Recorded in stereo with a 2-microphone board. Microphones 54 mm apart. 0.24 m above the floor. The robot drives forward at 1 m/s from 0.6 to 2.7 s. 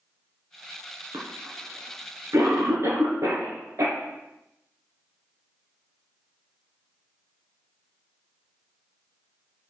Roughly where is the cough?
Right.